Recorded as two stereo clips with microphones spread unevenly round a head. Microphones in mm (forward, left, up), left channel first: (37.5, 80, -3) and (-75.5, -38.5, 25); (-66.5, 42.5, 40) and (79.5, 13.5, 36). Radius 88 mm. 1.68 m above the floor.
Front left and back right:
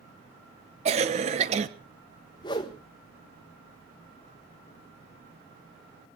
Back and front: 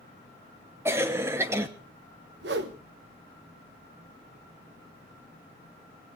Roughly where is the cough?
Right.